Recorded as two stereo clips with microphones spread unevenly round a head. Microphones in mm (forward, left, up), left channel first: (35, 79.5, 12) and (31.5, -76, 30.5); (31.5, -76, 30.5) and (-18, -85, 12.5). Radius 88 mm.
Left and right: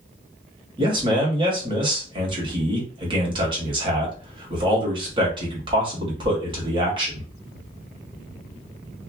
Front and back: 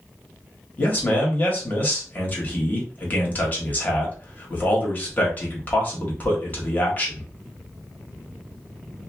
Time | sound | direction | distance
0.8 | a man speaking | 35° right | 1.5 m